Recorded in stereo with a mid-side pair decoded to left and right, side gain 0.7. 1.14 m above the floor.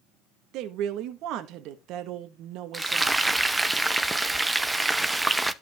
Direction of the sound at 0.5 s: 60° right.